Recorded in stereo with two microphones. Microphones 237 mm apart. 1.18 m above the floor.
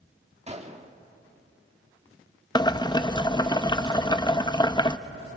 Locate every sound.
0.5 s a gunshot: 25° right (ahead or behind), 1.7 m
2.5 s boiling: 20° left (ahead or behind), 0.6 m